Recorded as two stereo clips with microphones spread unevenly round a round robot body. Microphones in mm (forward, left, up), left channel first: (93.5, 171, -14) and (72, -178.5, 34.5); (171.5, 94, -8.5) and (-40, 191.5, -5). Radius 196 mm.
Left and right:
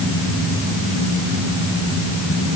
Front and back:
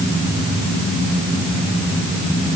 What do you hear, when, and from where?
Only background noise.